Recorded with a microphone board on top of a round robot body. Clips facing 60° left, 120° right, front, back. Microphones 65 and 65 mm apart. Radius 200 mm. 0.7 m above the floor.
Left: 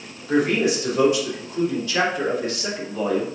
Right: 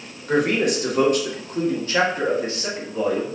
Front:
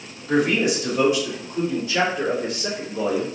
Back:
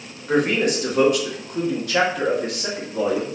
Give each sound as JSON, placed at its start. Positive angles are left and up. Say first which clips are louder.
{"t": 0.3, "sound": "a man speaking", "louder": "even, even", "azimuth_deg": -140, "distance_m": 1.8}